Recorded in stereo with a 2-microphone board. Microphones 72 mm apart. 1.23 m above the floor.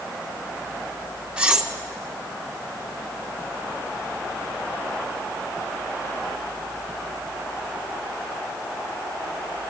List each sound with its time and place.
1.4 s cutlery clinking: 15° right (ahead or behind), 0.6 m